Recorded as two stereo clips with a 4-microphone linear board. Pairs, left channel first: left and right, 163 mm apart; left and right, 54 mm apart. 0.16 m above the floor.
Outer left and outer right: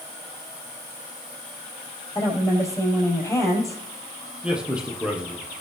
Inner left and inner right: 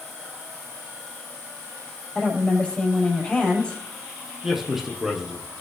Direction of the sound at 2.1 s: 20° left (ahead or behind).